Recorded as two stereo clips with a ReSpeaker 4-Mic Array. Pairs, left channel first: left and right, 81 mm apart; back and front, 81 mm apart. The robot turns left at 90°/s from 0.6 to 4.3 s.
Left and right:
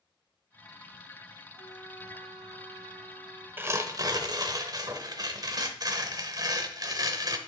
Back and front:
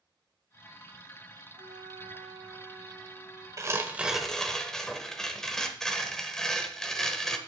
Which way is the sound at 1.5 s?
10° left.